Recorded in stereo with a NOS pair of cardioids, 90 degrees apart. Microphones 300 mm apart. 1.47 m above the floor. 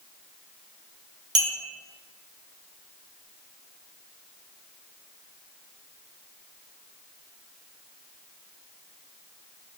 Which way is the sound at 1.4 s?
50° right.